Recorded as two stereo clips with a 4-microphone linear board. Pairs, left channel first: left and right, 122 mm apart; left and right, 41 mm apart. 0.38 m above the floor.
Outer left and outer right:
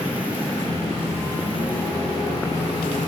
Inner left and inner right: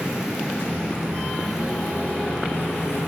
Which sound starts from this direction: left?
A microwave, at 0.6 s.